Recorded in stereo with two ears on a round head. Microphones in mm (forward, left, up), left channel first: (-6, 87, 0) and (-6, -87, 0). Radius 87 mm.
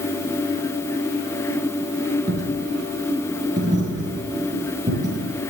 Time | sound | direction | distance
2.3 | a dropped coin | 20° right (ahead or behind) | 7 m